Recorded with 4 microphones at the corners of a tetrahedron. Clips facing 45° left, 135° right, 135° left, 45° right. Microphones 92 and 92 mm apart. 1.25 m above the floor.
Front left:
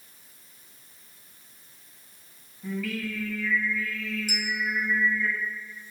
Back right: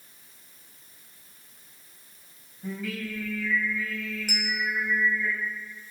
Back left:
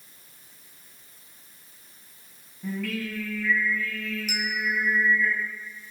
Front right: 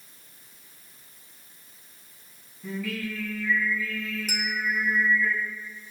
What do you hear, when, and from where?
2.6 s singing: 160° left, 5 m
4.3 s a bell: 95° right, 1.7 m